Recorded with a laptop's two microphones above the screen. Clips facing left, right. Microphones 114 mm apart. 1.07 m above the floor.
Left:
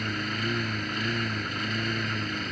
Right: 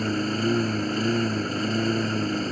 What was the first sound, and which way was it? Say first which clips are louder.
A lawn mower: right 7 dB; 35° right (ahead or behind).